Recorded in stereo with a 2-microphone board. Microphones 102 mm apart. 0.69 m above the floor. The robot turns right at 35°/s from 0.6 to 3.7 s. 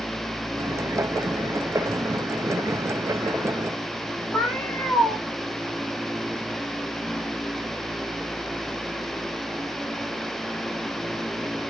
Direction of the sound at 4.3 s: 15° left (ahead or behind).